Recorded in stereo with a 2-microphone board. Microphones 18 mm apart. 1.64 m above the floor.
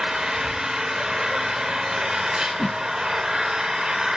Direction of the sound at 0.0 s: 40° right (ahead or behind).